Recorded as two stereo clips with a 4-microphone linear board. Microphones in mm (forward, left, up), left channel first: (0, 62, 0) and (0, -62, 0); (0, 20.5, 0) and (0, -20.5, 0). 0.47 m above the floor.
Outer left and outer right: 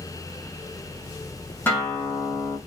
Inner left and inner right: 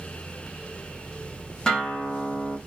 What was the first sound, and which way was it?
A guitar, 15° left (ahead or behind).